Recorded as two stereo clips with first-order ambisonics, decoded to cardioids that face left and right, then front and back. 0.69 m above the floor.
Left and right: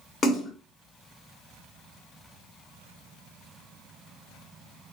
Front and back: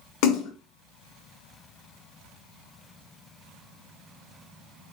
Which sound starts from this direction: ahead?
A splash, at 0.2 s.